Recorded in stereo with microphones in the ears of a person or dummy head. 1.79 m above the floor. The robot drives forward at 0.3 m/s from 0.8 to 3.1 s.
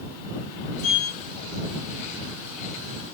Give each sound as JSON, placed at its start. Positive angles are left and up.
{"t": 0.8, "sound": "a sliding door", "side_deg": 40, "distance_m": 2.0}